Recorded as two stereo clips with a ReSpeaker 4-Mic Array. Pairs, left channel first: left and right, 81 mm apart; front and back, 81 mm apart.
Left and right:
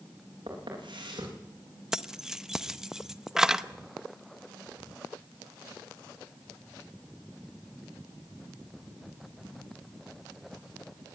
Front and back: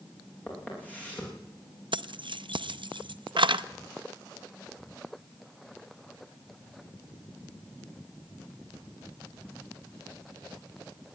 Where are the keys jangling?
175° right, 0.6 m.